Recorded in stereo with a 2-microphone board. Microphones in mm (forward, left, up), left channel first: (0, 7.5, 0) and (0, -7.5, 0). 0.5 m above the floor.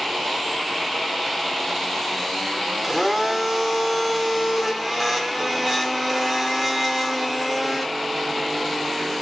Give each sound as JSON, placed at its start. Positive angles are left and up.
{"t": 2.8, "sound": "a blender", "side_deg": -15, "distance_m": 0.7}